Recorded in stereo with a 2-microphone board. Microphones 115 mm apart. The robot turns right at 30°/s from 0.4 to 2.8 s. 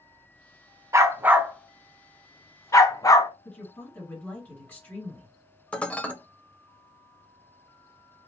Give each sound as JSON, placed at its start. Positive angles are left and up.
{"t": 0.9, "sound": "a dog barking", "side_deg": -25, "distance_m": 0.8}
{"t": 3.5, "sound": "a woman speaking", "side_deg": 15, "distance_m": 3.0}
{"t": 5.7, "sound": "dishes clattering", "side_deg": 10, "distance_m": 0.7}